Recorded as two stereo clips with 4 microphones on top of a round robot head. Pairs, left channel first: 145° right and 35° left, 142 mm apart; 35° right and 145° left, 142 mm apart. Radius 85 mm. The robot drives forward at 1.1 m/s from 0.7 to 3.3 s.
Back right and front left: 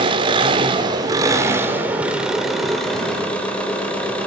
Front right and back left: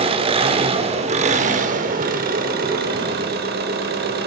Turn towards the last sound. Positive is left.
turn(degrees=130)